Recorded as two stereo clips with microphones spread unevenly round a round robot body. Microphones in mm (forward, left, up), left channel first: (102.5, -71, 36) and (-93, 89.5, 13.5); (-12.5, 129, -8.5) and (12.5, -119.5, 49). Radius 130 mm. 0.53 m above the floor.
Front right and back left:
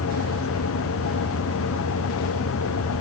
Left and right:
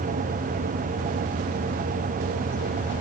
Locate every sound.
Only background noise.